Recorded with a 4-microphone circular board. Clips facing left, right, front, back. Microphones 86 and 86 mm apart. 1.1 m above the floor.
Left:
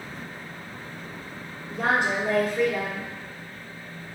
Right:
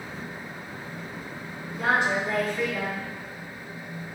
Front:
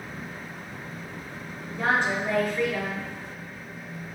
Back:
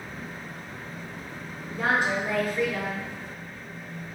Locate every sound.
1.7 s a woman speaking: 105° left, 0.7 m